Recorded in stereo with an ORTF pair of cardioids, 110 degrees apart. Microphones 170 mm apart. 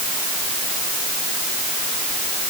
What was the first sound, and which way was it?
Only background noise.